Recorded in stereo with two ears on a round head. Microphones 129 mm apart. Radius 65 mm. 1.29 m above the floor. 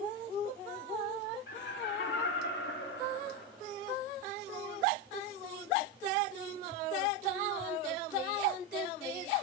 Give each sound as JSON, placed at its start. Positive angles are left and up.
{"t": 1.5, "sound": "laughter", "side_deg": 80, "distance_m": 3.5}